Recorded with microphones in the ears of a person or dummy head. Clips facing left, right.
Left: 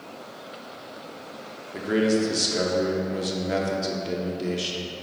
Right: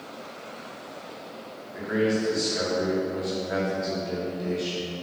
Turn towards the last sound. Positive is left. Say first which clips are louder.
# left 3 dB
turn(degrees=40)  # may be behind; listen again after turning